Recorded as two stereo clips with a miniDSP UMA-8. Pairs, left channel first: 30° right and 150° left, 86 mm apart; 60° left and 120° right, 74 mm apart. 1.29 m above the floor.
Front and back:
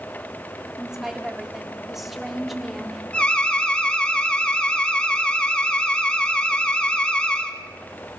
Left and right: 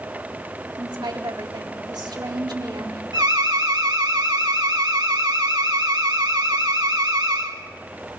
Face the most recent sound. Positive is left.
turn(degrees=-105)